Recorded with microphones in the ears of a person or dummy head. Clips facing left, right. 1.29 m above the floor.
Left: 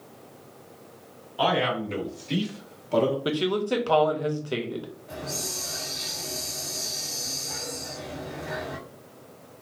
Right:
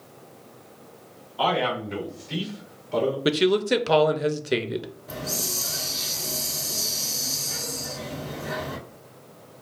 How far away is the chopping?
I don't hear chopping.